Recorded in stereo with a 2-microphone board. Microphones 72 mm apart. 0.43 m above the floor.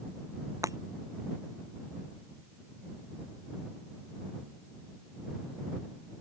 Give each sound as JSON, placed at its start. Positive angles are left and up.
{"t": 0.6, "sound": "breaking glass", "side_deg": -50}